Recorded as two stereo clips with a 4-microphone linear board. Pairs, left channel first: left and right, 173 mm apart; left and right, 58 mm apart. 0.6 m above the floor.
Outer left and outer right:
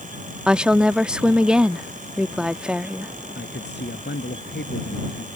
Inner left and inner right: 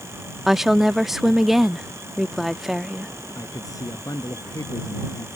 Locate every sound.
0.5 s a woman speaking: 5° right (ahead or behind)
3.4 s a man speaking: 85° left